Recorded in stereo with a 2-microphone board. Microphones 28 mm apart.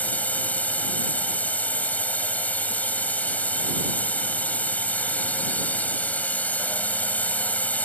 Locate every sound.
0.0 s a drone: 65° left (ahead or behind)